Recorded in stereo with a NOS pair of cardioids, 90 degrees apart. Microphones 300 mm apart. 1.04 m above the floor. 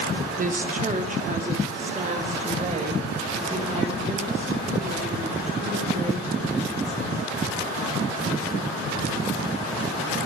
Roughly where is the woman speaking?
Ahead right.